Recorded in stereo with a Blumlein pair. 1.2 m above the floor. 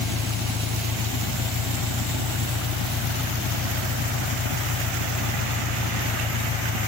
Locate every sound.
0.0 s an engine running: 20° left